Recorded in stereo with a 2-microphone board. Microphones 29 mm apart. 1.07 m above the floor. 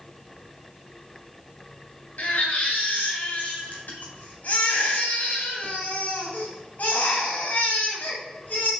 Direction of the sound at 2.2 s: 70° left (ahead or behind).